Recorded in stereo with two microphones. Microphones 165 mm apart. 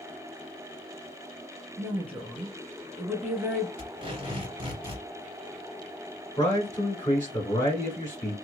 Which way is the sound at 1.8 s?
15° right (ahead or behind).